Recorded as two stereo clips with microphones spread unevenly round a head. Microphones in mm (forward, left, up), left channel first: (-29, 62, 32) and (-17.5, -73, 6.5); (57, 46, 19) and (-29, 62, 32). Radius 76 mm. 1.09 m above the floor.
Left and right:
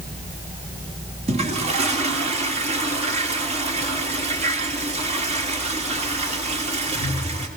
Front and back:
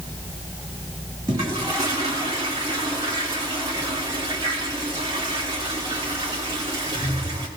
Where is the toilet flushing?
125° right, 3 m.